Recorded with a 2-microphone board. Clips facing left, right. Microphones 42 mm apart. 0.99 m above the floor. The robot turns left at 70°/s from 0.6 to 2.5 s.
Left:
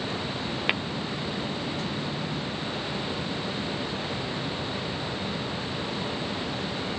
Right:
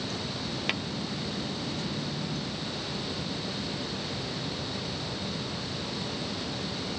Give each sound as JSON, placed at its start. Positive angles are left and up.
{"t": 0.7, "sound": "tapping", "side_deg": 25, "distance_m": 0.6}